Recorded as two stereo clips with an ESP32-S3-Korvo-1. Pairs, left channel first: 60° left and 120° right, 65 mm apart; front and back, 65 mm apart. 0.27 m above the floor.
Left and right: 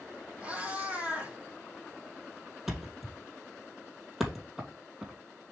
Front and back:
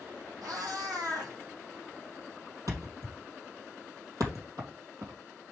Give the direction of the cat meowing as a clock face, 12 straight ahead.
6 o'clock.